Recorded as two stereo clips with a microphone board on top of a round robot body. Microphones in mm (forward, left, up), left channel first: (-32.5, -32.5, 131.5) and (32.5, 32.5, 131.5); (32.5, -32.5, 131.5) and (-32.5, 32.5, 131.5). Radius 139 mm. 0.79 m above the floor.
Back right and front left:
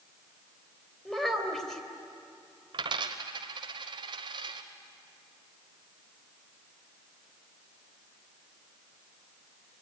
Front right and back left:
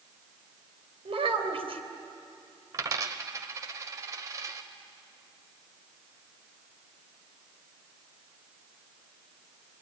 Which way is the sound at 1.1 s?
145° left.